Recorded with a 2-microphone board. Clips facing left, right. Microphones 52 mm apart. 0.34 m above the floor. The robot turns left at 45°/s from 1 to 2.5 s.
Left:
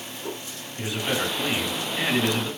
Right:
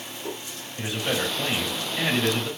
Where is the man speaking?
110° right, 1.8 m; by 2.5 s straight behind, 1.8 m.